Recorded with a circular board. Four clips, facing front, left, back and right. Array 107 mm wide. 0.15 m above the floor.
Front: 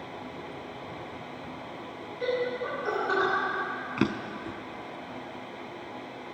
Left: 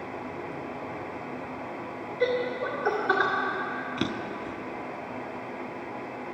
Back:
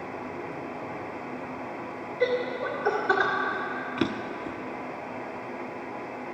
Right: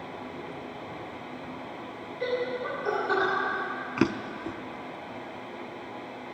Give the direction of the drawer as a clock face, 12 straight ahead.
2 o'clock.